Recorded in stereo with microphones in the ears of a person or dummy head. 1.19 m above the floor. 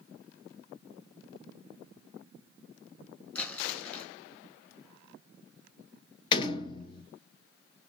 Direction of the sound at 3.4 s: 10° left (ahead or behind).